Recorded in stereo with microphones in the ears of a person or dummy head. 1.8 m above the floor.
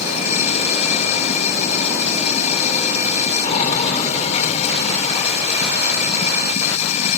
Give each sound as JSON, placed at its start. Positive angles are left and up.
{"t": 0.0, "sound": "running water", "side_deg": 40}